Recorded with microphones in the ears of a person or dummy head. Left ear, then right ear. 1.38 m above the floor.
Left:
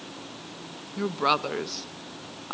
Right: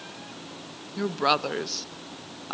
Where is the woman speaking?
10° right (ahead or behind), 0.6 m.